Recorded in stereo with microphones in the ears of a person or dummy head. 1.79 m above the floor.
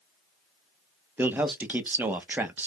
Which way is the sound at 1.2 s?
10° right (ahead or behind).